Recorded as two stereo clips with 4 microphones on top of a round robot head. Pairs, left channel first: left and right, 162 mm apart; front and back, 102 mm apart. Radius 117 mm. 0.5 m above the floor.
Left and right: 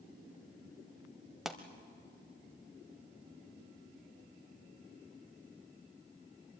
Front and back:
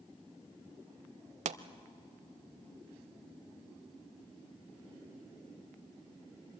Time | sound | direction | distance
1.4 | a pop | straight behind | 0.6 m